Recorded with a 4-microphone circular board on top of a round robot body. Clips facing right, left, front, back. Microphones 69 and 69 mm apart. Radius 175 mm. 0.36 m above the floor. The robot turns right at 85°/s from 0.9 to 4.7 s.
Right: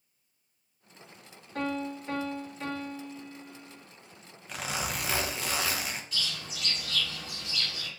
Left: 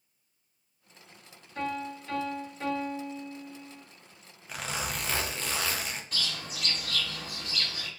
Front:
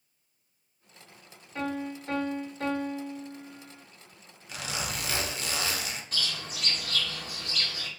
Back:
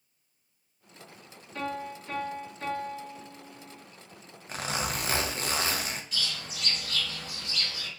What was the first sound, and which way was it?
A piano, 75° right.